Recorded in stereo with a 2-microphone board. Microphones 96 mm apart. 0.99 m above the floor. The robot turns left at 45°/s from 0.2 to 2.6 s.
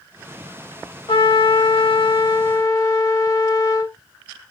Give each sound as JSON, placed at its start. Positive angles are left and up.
{"t": 1.1, "sound": "a trumpet", "azimuth_deg": 110, "distance_m": 1.2}